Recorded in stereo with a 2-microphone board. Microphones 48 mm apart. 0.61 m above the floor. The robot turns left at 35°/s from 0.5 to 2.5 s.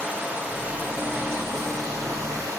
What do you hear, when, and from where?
0.0 s running water: 20° right, 4.5 m; by 2.6 s 90° right, 4.5 m